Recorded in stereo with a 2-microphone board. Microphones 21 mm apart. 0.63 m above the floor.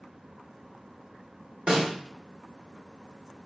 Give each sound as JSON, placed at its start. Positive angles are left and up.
{"t": 1.7, "sound": "a snare drum", "side_deg": -45, "distance_m": 1.4}